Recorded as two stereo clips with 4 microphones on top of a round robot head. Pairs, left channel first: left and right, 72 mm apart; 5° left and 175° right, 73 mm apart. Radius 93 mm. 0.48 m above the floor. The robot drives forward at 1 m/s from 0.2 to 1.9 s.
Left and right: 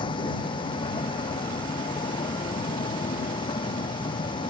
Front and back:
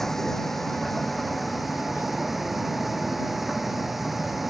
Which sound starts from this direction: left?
A vehicle, at 0.0 s.